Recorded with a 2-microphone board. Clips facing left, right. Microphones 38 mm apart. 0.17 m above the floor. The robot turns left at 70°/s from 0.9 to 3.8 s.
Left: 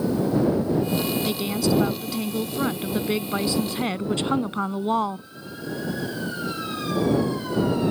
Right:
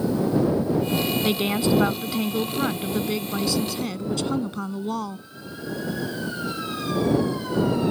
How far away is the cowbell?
I don't hear a cowbell.